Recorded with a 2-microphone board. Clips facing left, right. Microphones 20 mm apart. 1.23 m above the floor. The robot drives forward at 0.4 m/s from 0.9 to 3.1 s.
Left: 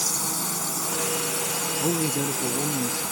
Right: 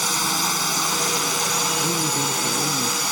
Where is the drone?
65° right (ahead or behind).